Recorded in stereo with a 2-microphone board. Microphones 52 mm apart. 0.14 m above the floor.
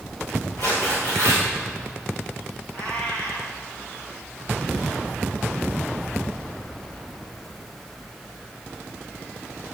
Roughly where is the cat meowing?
Left.